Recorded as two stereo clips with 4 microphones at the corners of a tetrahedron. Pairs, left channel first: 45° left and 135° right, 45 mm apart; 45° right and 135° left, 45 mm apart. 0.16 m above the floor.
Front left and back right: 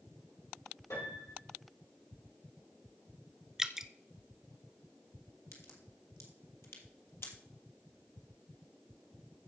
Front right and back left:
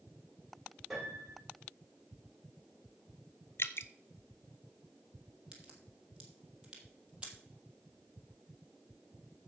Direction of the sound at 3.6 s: 55° right.